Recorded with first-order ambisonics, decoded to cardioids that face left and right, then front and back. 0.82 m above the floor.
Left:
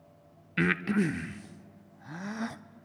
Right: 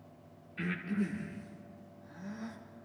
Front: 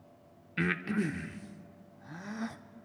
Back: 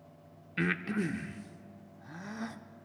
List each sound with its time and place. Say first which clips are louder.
0.6 s breathing: left 9 dB, even; 85° left, 0.5 m